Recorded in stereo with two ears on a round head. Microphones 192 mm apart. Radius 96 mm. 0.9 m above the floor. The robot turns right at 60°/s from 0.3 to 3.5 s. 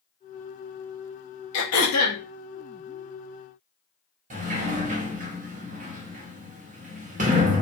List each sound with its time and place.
1.5 s throat clearing: 65° left, 0.8 m; by 2.2 s 105° left, 0.8 m
4.3 s a sliding door: 35° right (ahead or behind), 0.9 m